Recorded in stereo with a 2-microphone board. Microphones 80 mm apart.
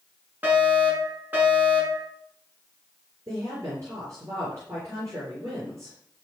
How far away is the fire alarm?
About 7 m.